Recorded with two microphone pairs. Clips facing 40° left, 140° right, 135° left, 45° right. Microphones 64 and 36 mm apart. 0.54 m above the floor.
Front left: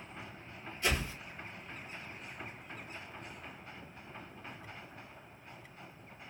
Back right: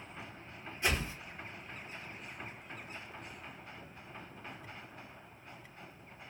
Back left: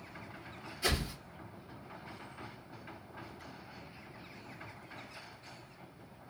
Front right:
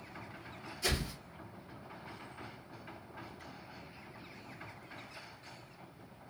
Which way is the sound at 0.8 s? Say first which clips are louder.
Even, back left 2 dB; 175° left.